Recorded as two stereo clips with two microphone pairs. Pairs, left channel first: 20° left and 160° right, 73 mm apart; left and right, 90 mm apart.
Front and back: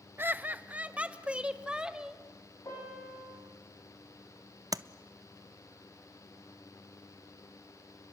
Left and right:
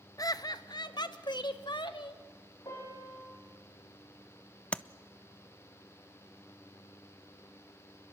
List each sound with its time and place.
0.2 s laughter: 140° left, 1.0 m; by 2.2 s 120° left, 2 m
2.6 s a piano: 55° left, 8.5 m
4.7 s tapping: 170° left, 0.5 m